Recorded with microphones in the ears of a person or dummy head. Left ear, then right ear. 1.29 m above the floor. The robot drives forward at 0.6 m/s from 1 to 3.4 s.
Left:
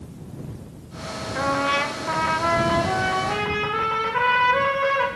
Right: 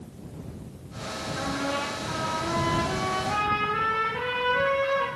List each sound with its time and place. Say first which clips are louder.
1.4 s a trumpet: left 9 dB; 50° left (ahead or behind), 0.7 m; by 5.1 s 35° left (ahead or behind), 0.9 m